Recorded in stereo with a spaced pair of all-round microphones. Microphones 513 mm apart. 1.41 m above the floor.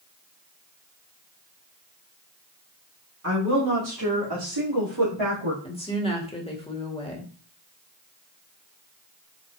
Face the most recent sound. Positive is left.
turn(degrees=10)  # may be behind; listen again after turning